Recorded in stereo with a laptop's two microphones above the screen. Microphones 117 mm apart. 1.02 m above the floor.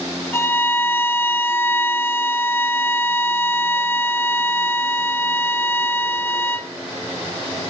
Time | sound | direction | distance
0.3 | a violin | 20° left (ahead or behind) | 1.1 m